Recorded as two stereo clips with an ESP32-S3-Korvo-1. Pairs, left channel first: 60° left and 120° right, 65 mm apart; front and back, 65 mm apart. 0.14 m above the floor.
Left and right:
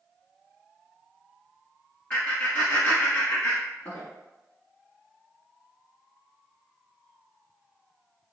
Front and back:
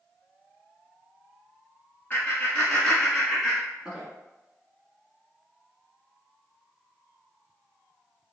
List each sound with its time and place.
2.1 s laughter: 15° left, 1.2 m; by 4.0 s 115° left, 1.4 m